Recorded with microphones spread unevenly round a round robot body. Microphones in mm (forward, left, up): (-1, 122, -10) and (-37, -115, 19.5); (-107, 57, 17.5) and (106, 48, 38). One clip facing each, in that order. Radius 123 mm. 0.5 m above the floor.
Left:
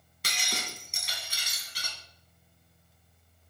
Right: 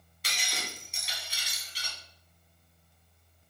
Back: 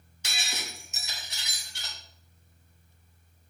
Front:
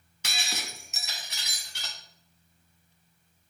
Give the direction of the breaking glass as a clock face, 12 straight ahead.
11 o'clock.